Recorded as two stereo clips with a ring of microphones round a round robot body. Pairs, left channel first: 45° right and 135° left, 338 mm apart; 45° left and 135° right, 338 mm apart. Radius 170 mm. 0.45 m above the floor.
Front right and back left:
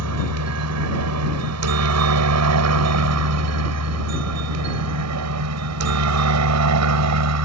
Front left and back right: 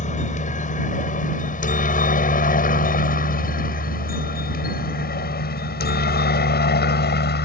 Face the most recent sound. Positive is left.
turn(degrees=100)